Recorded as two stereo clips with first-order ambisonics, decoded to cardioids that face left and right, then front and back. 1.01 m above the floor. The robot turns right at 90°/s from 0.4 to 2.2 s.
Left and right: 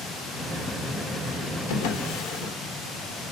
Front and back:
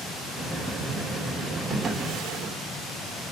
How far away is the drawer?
About 1.7 m.